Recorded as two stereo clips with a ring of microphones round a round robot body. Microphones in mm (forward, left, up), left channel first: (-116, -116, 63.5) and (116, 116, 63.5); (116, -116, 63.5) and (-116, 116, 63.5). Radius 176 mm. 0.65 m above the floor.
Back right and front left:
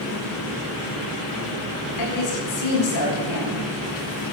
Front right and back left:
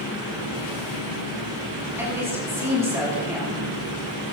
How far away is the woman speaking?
About 6.5 m.